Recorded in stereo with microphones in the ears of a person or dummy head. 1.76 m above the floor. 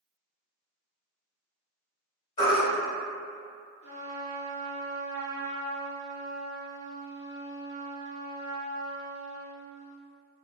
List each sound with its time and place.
2.4 s a baby crying: 35° left (ahead or behind), 1.8 m
3.8 s a trumpet: 45° left (ahead or behind), 1.0 m